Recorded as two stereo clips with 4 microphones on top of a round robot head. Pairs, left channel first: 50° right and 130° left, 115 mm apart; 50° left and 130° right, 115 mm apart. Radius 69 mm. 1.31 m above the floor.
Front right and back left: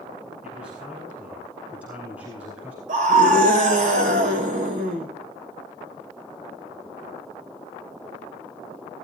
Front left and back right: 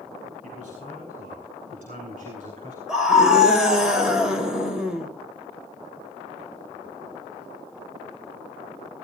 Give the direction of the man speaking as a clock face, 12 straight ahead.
5 o'clock.